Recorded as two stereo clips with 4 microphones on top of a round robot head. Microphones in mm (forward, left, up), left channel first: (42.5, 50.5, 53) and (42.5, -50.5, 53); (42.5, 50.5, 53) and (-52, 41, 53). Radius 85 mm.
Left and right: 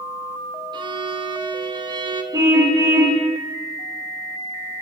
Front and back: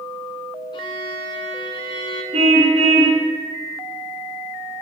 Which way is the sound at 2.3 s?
155° right.